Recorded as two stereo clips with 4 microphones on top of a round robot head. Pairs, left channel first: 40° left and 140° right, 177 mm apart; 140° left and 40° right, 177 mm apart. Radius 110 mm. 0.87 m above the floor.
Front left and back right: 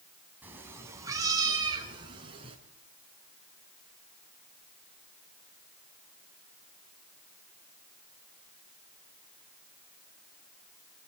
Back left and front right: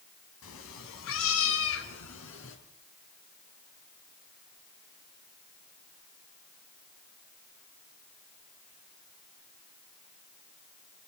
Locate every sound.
0.4 s a cat meowing: 140° left, 3 m; by 2.6 s 155° left, 4.5 m